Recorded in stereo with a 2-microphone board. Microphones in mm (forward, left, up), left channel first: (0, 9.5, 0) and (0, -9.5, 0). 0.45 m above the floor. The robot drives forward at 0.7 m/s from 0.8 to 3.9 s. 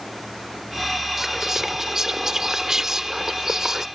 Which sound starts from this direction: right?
Whispering, at 1.2 s.